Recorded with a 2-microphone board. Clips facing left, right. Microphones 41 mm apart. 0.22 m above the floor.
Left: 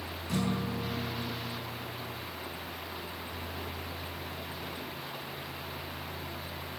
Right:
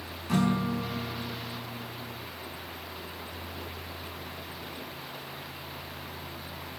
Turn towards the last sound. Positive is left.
turn(degrees=-55)  # may be behind; listen again after turning